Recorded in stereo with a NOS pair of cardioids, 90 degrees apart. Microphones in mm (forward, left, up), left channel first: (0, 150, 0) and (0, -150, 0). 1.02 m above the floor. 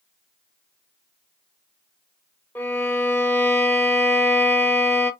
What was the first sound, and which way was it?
A violin, 5° left.